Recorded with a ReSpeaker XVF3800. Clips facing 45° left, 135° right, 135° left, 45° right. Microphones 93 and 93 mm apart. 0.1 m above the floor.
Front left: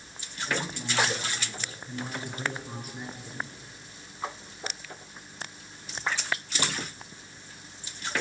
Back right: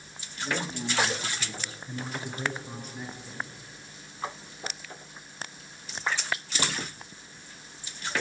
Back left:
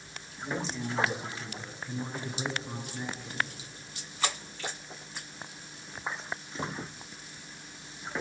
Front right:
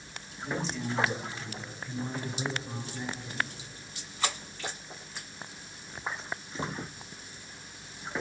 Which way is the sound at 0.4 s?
160° right.